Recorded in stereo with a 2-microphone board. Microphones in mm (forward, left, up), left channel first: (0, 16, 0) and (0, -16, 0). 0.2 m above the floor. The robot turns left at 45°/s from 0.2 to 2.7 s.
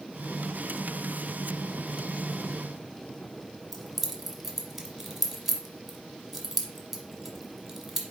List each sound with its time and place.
3.7 s keys jangling: 10° right (ahead or behind), 1.0 m